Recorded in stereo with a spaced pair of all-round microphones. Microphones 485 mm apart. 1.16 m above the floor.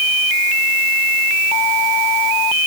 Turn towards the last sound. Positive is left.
No sound to turn to.